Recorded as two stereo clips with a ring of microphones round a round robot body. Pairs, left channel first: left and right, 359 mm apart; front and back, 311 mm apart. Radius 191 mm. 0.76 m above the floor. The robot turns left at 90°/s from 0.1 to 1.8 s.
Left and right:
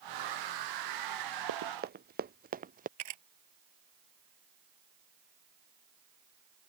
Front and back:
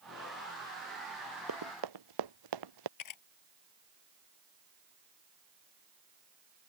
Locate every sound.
1.5 s running footsteps: 125° right; by 2.9 s 160° right
3.0 s a camera shutter: 40° right